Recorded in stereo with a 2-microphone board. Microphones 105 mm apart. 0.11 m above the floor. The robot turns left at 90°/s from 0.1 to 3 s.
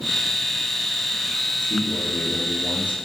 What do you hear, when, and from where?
1.6 s a man speaking: 55° left, 2.5 m; by 3.0 s 65° right, 2.5 m